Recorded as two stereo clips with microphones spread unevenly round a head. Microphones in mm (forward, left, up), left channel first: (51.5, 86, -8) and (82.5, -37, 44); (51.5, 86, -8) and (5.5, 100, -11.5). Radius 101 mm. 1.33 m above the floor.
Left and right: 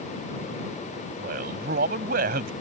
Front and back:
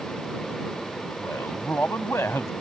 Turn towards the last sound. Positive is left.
turn(degrees=-90)